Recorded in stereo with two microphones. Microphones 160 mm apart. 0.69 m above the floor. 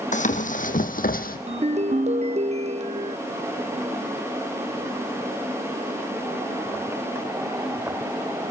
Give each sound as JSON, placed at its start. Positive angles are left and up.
{"t": 0.1, "sound": "running footsteps", "side_deg": 50, "distance_m": 1.9}
{"t": 1.5, "sound": "a ringtone", "side_deg": -45, "distance_m": 0.6}